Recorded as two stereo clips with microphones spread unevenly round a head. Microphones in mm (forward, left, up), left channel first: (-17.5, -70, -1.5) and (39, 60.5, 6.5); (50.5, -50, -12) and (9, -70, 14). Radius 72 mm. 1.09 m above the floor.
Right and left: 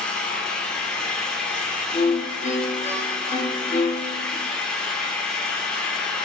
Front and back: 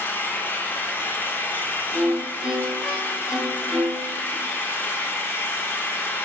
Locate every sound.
0.0 s an engine running: 30° right, 1.5 m
1.9 s a violin: 70° right, 2.5 m